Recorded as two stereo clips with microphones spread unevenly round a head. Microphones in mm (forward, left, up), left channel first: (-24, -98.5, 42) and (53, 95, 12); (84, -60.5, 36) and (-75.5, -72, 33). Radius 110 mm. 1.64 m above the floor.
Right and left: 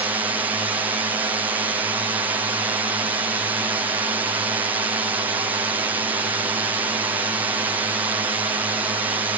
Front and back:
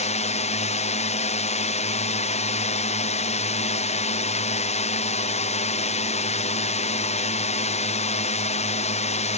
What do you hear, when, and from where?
0.0 s a drone: straight ahead